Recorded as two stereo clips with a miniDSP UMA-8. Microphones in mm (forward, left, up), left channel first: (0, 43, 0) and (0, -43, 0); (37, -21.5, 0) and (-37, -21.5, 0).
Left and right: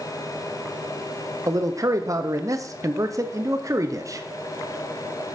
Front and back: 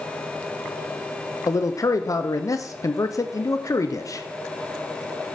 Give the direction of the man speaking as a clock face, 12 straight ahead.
1 o'clock.